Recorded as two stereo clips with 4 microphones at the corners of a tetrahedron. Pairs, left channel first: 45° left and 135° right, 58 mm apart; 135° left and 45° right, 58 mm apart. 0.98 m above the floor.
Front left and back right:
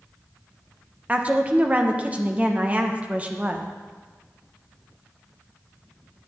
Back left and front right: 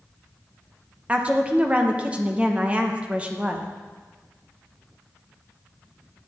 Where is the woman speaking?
95° right, 0.8 m.